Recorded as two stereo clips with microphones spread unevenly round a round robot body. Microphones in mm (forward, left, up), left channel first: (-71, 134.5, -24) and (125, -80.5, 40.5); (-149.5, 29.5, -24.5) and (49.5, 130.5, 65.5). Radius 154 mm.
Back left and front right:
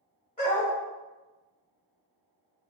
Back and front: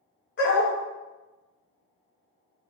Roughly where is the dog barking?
Behind.